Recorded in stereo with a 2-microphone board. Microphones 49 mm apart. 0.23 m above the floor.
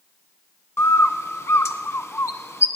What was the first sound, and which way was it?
A bird, 65° left (ahead or behind).